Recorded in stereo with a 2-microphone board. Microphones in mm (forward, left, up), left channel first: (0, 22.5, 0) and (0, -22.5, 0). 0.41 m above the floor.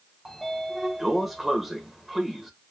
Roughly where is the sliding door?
Centre.